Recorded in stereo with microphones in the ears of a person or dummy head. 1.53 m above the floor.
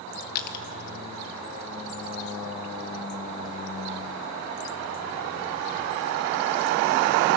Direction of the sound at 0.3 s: 55° left (ahead or behind).